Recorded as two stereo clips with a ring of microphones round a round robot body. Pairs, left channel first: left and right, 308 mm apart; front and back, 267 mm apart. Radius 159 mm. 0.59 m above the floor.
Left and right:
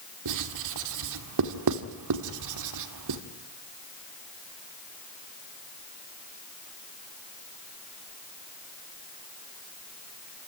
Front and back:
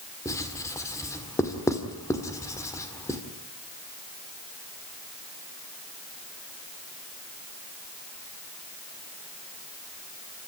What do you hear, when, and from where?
0.2 s writing: 80° right, 1.7 m